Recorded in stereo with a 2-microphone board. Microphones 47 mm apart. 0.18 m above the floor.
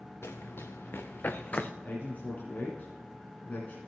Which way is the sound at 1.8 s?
40° left (ahead or behind).